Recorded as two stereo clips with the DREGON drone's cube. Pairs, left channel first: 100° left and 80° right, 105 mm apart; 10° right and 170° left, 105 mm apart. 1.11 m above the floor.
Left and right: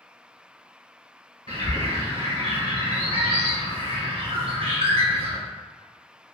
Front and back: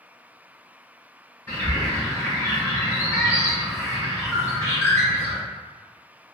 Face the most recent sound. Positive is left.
turn(degrees=-75)